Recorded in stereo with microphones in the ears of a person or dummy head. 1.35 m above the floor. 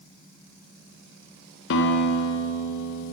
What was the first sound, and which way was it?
A guitar, 65° left (ahead or behind).